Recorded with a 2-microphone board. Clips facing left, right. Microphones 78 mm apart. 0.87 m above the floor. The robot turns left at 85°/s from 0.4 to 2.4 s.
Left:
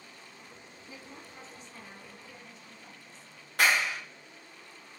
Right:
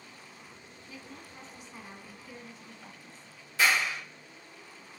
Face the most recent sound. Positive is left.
turn(degrees=60)  # may be behind; listen again after turning